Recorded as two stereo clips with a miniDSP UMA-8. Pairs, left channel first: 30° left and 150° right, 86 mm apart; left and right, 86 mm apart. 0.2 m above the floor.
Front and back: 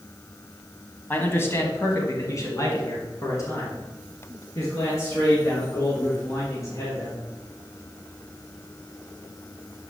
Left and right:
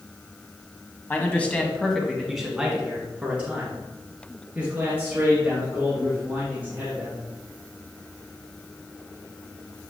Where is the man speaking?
55° left, 1.1 m; by 7.2 s 20° right, 5 m.